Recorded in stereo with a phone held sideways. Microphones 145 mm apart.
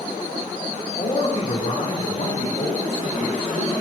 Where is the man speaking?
50° left (ahead or behind), 3.5 m.